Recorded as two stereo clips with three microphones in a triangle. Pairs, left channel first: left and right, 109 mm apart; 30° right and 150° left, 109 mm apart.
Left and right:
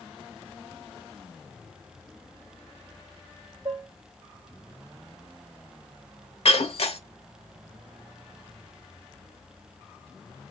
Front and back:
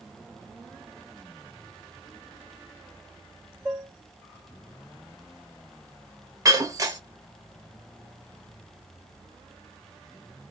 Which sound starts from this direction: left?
Breaking glass, at 6.5 s.